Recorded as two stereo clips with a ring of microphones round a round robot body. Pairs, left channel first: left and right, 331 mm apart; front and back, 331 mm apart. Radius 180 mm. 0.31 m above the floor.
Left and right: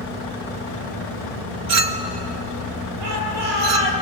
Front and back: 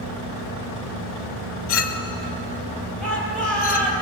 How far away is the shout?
About 8 m.